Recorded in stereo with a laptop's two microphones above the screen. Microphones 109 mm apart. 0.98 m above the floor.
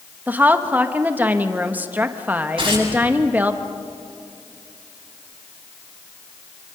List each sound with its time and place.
0.3 s a woman speaking: 15° right (ahead or behind), 1.0 m
2.6 s tearing paper: 50° right (ahead or behind), 8.5 m